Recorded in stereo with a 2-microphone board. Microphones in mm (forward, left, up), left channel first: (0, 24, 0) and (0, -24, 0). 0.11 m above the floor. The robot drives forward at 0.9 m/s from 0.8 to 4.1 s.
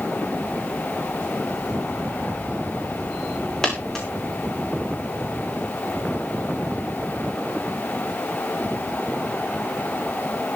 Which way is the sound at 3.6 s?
10° left (ahead or behind).